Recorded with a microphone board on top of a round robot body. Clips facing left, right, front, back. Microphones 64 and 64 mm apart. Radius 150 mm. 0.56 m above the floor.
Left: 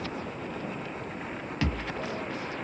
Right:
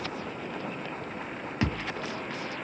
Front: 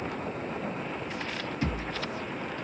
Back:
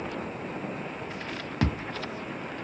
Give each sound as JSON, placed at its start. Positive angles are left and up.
{"t": 1.6, "sound": "a thud", "azimuth_deg": -160, "distance_m": 0.9}